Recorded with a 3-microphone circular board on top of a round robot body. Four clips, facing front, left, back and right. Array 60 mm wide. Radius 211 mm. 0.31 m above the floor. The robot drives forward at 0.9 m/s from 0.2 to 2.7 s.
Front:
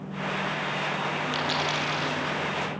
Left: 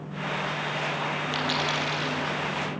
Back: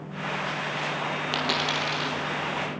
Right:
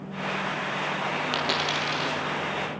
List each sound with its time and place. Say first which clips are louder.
1.3 s a dropped coin: even, back 2 dB; 140° right, 3.5 m; by 2.2 s 145° right, 4.5 m